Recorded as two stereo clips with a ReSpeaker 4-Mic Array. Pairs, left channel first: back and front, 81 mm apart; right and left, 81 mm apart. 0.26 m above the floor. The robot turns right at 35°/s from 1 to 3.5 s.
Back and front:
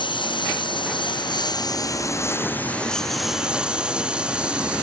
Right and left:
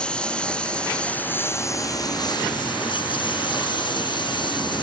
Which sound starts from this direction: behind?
A lawn mower, at 0.0 s.